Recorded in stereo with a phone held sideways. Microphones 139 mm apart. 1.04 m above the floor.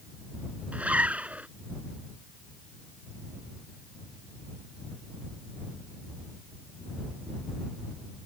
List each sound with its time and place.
0.7 s a zipper: 10° right (ahead or behind)